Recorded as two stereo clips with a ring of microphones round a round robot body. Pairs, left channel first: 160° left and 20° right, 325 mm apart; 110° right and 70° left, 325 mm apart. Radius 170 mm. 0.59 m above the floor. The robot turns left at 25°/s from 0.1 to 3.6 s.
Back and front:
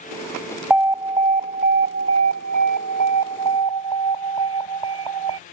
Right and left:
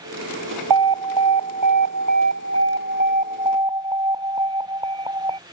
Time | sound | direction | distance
0.7 | an alarm | 65° left | ?